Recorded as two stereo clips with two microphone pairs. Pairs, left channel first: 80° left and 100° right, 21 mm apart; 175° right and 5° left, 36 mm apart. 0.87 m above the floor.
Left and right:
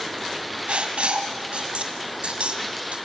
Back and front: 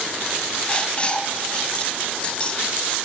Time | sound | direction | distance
0.7 | writing | 120° right | 2 m